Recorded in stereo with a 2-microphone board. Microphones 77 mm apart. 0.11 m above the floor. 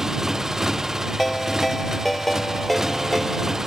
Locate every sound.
0.0 s a motorcycle: 5° right (ahead or behind)
1.2 s a ringtone: centre (ahead or behind)